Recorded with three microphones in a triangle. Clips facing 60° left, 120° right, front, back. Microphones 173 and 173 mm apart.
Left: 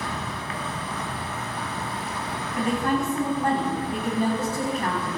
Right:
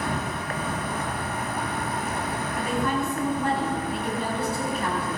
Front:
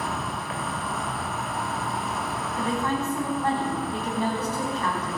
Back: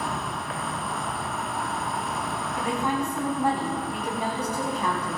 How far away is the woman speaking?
About 4.5 m.